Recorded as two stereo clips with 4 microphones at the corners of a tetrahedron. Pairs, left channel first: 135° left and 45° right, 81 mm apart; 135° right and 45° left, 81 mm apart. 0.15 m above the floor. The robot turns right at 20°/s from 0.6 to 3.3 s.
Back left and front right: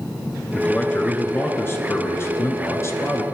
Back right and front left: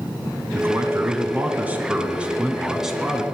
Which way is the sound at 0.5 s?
80° left.